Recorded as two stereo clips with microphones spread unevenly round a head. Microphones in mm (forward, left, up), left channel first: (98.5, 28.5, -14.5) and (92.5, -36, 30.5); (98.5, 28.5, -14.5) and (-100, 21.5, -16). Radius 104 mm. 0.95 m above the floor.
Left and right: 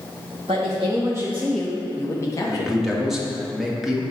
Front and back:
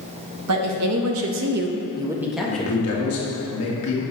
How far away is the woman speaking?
About 1.0 m.